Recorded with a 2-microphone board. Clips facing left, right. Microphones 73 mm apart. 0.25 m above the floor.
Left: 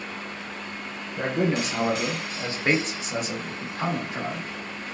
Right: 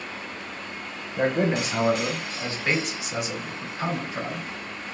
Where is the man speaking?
30° right (ahead or behind), 1.0 m; by 4.5 s 60° left (ahead or behind), 1.7 m.